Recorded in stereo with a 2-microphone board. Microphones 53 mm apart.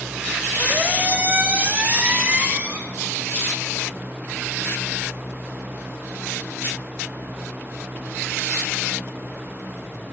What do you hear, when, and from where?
0.6 s a squeak: 25° right (ahead or behind), 1.6 m